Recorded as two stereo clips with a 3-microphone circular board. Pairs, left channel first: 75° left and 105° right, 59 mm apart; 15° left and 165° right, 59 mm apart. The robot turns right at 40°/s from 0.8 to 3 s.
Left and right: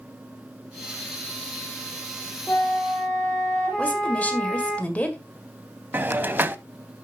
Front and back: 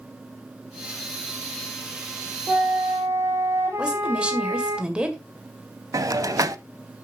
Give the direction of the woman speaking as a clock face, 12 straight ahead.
8 o'clock.